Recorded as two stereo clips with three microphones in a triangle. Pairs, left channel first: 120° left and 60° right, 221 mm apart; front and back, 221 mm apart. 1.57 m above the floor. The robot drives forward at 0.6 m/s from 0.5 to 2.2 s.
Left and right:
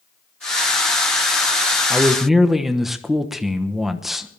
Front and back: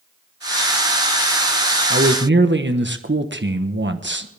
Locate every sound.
1.9 s a man speaking: 145° right, 1.2 m; by 4.3 s 150° right, 1.3 m